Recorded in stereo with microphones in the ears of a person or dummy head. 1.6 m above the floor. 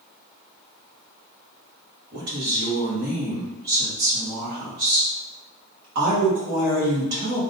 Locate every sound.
2.1 s a woman speaking: 50° right (ahead or behind), 2.0 m